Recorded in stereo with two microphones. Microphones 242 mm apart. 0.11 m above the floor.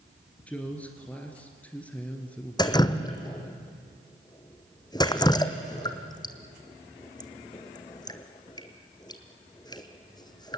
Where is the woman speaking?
5° left (ahead or behind), 1.9 m.